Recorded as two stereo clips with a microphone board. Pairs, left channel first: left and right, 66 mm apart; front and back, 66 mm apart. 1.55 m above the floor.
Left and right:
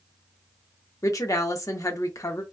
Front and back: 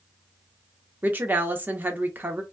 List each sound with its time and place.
1.0 s a woman speaking: 120° left, 0.7 m